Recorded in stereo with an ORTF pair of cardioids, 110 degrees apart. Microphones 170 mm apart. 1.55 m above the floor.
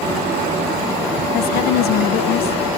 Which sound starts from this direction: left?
A woman speaking, at 1.3 s.